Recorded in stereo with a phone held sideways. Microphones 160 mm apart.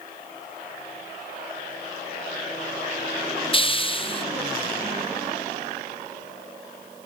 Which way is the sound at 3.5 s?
30° left (ahead or behind).